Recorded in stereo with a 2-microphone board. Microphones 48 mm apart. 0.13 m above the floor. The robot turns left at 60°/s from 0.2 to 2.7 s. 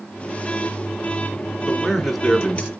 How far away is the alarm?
No alarm in this recording.